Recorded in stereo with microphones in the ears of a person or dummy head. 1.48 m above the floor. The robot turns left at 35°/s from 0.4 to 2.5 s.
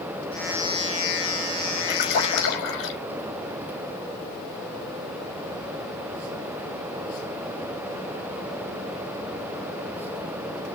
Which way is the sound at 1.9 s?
45° left (ahead or behind).